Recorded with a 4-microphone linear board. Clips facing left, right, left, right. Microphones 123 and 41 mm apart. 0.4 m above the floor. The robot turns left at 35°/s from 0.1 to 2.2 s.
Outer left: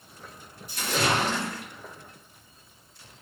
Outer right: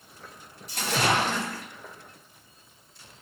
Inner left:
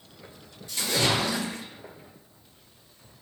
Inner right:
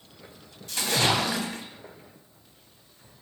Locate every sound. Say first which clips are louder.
0.7 s a splash: outer right 1 dB, inner right 1 dB; 105° right, 0.9 m; by 1.7 s 140° right, 0.9 m